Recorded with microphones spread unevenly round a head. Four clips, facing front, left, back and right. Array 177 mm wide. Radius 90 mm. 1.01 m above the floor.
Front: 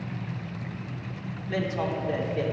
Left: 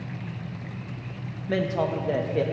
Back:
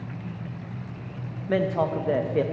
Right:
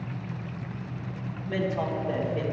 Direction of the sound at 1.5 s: 155° left.